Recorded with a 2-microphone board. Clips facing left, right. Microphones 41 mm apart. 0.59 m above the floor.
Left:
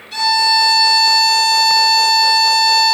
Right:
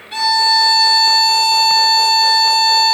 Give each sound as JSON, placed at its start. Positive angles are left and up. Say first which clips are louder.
{"t": 0.1, "sound": "a violin", "louder": "even", "side_deg": -25, "distance_m": 0.8}